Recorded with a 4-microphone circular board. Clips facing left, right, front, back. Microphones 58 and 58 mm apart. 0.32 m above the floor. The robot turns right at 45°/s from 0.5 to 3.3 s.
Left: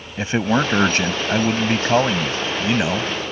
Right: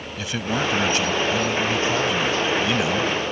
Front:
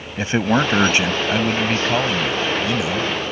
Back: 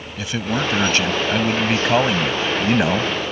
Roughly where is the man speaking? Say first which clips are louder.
Left 6 dB, front 5 dB; ahead left.